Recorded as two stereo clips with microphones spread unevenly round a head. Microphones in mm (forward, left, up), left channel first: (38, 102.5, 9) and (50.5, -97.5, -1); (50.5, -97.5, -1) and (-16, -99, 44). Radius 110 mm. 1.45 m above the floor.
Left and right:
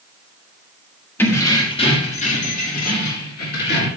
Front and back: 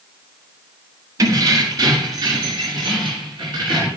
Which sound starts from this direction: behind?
Keys jangling, at 1.2 s.